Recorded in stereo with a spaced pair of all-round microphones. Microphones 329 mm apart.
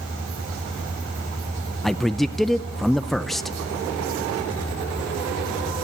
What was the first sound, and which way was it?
A man speaking, centre (ahead or behind).